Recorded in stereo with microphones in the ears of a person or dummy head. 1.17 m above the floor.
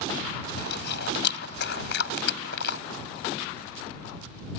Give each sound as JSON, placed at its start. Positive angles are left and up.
{"t": 0.6, "sound": "chewing", "side_deg": 65}